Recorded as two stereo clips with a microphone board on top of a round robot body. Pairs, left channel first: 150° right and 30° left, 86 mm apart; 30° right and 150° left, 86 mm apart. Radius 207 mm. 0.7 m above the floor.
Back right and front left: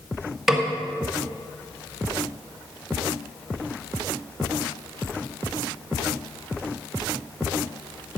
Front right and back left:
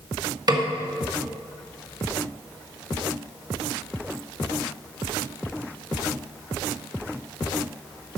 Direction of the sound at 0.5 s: 115° left.